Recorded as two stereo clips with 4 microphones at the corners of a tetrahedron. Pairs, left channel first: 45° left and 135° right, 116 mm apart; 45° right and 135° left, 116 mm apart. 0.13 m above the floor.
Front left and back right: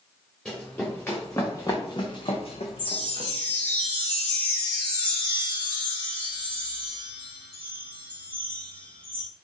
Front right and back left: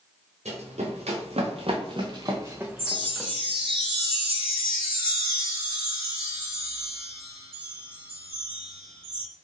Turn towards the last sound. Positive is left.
turn(degrees=-20)